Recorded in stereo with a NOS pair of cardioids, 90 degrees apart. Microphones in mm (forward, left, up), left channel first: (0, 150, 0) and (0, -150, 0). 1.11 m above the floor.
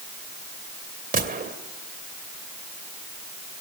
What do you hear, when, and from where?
1.1 s a gunshot: 30° right, 2.5 m